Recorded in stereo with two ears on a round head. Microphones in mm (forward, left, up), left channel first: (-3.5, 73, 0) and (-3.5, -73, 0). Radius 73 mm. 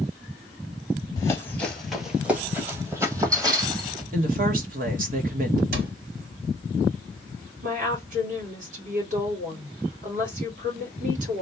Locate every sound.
1.2 s running footsteps: 20° left (ahead or behind), 1.0 m; by 4.0 s 25° right (ahead or behind), 2.5 m
4.1 s a woman speaking: 55° right (ahead or behind), 1.2 m
5.7 s a cupboard door: 60° right (ahead or behind), 1.0 m
7.6 s a woman speaking: 50° right (ahead or behind), 2 m